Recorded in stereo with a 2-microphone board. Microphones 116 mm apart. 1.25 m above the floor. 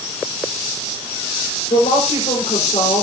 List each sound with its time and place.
1.7 s a woman speaking: 90° left, 5 m